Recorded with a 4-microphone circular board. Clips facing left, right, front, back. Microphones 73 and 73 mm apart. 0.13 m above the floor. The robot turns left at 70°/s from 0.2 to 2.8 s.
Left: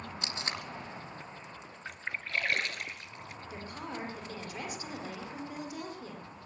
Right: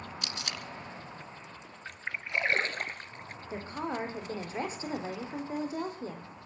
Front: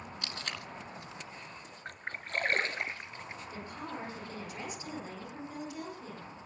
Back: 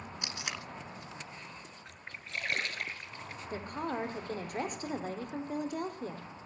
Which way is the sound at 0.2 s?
125° left.